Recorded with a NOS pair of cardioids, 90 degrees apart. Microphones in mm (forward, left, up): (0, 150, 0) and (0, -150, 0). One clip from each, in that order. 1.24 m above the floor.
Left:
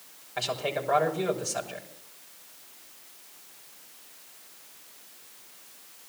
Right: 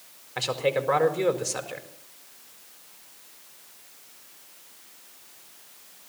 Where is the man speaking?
40° right, 5 m.